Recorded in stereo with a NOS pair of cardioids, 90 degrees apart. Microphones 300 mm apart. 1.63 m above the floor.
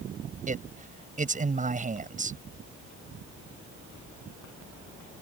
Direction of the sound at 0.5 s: 25° right.